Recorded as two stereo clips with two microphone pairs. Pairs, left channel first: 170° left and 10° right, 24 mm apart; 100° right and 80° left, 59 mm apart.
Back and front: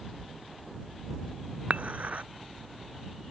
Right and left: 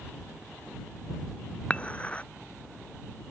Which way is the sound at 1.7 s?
30° right.